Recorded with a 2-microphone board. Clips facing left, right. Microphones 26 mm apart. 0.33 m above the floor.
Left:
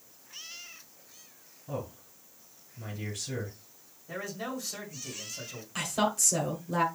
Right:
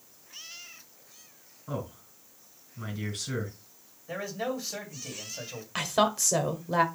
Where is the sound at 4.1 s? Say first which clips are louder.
Right 4 dB; 30° right (ahead or behind), 2.5 m.